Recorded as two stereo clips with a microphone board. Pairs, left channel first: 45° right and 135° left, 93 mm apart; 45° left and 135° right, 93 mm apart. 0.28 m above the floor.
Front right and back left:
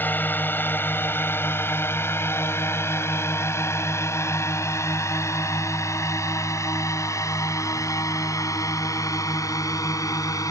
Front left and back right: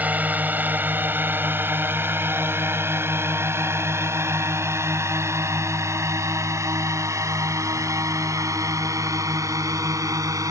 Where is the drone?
85° right; by 10.5 s 90° right.